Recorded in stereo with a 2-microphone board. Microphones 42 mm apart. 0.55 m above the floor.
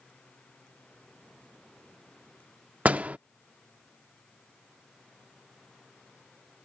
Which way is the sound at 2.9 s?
35° right (ahead or behind).